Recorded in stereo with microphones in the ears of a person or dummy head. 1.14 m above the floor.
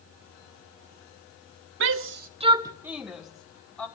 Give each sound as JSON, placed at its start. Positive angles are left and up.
{"t": 1.8, "sound": "a shout", "side_deg": -70, "distance_m": 0.7}